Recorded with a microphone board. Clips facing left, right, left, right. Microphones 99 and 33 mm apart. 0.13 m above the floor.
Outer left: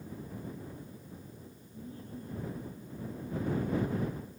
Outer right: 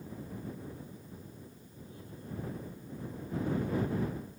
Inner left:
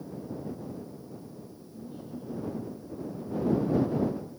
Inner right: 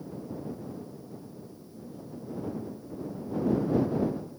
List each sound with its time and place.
1.7 s laughter: 40° left (ahead or behind); by 4.1 s 50° left (ahead or behind)